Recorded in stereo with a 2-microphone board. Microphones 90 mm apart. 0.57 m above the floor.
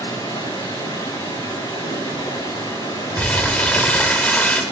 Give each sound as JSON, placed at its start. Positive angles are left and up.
{"t": 0.0, "sound": "running water", "side_deg": 70, "distance_m": 10.0}
{"t": 3.2, "sound": "crumpling", "side_deg": 15, "distance_m": 1.3}